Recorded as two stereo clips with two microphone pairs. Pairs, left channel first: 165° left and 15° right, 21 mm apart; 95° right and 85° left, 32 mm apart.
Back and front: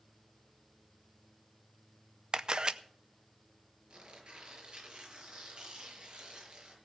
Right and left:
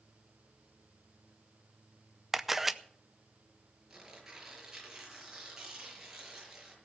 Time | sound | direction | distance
2.3 | a camera shutter | 5° left | 0.6 m
3.9 | tearing paper | 15° left | 5.5 m